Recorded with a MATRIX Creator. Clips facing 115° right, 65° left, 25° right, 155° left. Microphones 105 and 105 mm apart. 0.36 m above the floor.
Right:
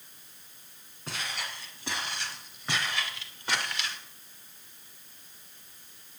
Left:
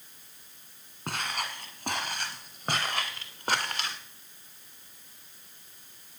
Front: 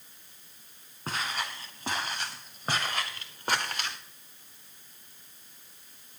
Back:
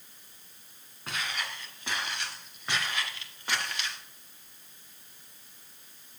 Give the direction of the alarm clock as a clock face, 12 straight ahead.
No alarm clock in this recording.